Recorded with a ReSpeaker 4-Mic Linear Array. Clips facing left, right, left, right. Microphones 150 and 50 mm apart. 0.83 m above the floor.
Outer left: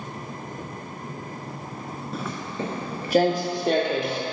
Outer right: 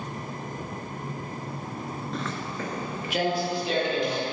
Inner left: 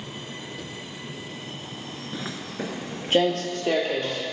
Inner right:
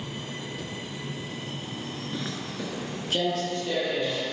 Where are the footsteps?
5° left (ahead or behind), 0.8 m; by 4.2 s 55° left (ahead or behind), 1.7 m.